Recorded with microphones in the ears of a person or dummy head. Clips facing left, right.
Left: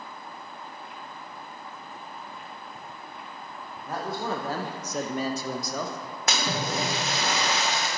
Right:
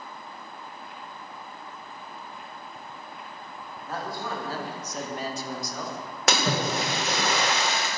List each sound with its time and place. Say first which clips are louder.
3.9 s a man speaking: left 3 dB; 15° left (ahead or behind), 1.0 m; by 7.3 s 45° left (ahead or behind), 1.9 m
6.3 s a splash: right 3 dB; 60° right (ahead or behind), 1.0 m